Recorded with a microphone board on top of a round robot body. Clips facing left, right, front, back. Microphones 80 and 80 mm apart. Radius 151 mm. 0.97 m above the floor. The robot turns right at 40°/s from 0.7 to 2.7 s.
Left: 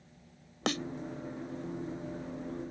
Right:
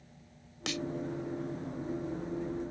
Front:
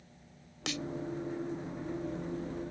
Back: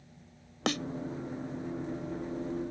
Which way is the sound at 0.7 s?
135° left.